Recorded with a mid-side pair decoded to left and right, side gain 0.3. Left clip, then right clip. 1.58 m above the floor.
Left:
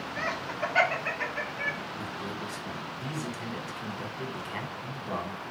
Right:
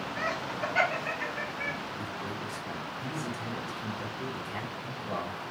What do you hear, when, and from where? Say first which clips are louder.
0.2 s laughter: left 1 dB; 35° left, 1.4 m; by 1.8 s 75° left, 1.3 m
1.9 s a man speaking: even; 55° left, 1.7 m